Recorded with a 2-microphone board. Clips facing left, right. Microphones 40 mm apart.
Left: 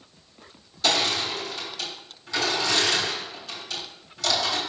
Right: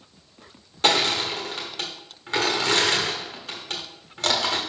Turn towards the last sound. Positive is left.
turn(degrees=-45)  # may be behind; listen again after turning